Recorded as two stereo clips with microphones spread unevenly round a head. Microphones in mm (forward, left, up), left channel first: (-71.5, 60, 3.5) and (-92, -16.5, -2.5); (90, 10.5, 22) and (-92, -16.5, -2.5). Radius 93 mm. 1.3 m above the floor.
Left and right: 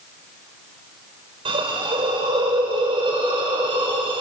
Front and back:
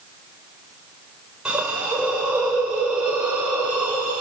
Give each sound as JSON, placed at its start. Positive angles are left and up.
{"t": 1.4, "sound": "a hiss", "azimuth_deg": -85, "distance_m": 5.5}